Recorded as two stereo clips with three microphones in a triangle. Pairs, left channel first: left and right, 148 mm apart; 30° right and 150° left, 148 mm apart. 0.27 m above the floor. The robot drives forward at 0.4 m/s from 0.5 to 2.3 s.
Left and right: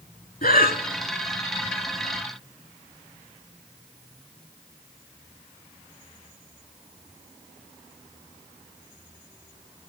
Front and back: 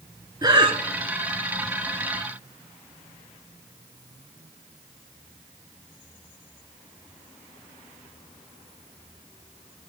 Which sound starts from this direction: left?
Breathing, at 0.4 s.